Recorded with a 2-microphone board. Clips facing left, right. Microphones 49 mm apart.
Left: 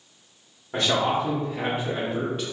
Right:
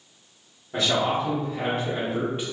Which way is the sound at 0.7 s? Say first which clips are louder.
Left 1 dB; 40° left (ahead or behind).